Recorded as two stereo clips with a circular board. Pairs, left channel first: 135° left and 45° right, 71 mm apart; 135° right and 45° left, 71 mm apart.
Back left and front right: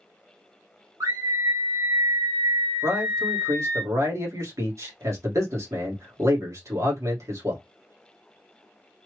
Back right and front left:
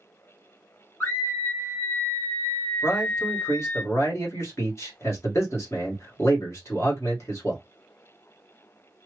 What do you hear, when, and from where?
1.0 s a scream: 75° right, 2.5 m
2.8 s a man speaking: 85° right, 2 m